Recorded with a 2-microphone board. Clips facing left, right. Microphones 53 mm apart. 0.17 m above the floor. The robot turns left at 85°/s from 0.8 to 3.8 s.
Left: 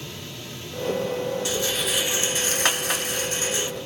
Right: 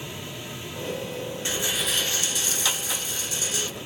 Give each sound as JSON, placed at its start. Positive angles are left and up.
{"t": 1.4, "sound": "a rattle", "azimuth_deg": -145, "distance_m": 0.5}